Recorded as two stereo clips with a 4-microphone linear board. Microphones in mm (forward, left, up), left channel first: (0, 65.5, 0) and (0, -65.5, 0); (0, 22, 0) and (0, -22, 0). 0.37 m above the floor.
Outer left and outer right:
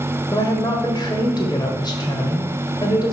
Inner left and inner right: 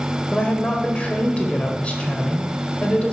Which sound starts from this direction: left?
A woman speaking, at 0.3 s.